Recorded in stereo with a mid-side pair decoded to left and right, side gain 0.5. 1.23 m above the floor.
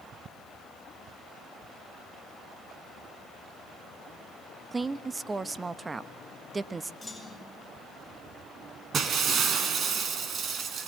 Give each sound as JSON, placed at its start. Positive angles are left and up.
{"t": 4.7, "sound": "a woman speaking", "azimuth_deg": -25, "distance_m": 1.1}
{"t": 7.0, "sound": "a clunk", "azimuth_deg": 5, "distance_m": 8.0}
{"t": 8.9, "sound": "breaking glass", "azimuth_deg": -50, "distance_m": 3.5}